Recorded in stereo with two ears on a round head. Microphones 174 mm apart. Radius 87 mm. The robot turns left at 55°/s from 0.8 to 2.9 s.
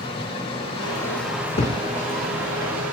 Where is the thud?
30° left (ahead or behind), 1.0 m; by 1.8 s 45° left (ahead or behind), 1.0 m.